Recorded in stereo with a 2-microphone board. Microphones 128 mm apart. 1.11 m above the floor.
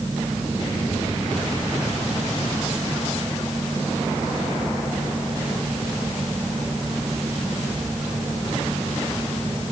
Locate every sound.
Only background noise.